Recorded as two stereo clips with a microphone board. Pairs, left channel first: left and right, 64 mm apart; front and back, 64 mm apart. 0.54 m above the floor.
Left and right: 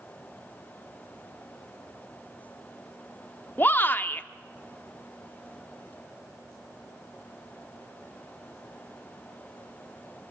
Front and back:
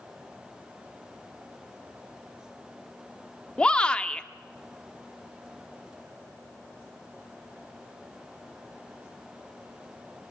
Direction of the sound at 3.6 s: 65° left.